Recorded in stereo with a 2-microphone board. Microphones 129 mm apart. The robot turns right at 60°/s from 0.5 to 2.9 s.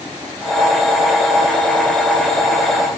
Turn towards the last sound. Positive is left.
No sound to turn to.